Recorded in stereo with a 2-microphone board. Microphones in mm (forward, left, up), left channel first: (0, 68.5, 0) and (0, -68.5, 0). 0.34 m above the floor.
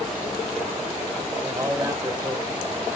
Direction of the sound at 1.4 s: 25° right (ahead or behind).